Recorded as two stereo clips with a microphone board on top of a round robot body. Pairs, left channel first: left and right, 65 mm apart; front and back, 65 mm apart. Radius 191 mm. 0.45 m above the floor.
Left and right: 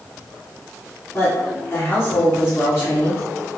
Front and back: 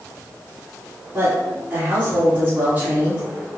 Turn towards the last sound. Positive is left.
turn(degrees=130)